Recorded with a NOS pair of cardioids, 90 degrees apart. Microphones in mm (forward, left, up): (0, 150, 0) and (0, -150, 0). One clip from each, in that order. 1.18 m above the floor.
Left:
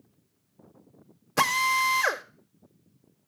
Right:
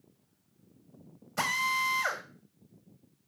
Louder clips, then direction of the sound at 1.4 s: Left 6 dB; 55° left.